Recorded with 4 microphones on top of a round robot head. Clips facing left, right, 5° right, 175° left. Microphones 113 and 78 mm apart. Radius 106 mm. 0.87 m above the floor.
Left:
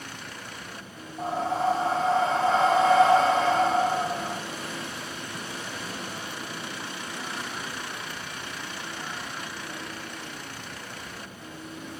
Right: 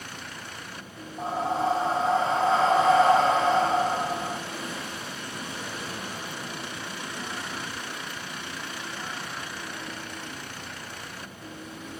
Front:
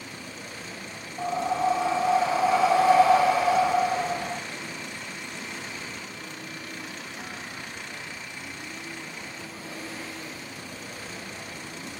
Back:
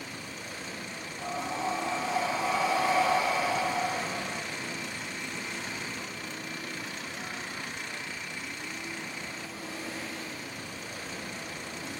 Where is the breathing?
10° right, 0.5 m.